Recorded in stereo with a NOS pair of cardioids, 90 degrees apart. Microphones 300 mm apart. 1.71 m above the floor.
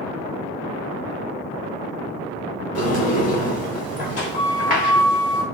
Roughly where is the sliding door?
Ahead left.